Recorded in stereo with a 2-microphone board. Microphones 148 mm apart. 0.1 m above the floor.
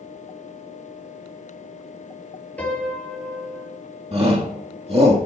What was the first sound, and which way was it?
A piano, 10° left (ahead or behind).